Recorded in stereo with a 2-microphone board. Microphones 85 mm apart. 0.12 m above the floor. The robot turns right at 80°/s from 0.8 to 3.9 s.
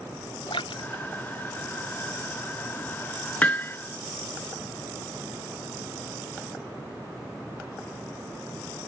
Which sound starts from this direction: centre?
Hammering, at 3.4 s.